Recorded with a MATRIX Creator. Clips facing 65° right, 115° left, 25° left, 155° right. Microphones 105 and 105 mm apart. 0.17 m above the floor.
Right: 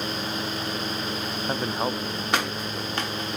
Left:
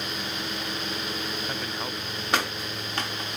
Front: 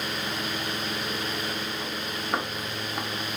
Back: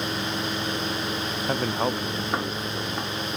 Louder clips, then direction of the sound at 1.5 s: Right 6 dB, back 8 dB; 120° right.